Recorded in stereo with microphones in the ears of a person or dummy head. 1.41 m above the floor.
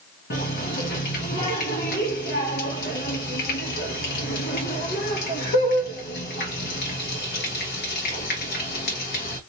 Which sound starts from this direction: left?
A running tap, at 0.3 s.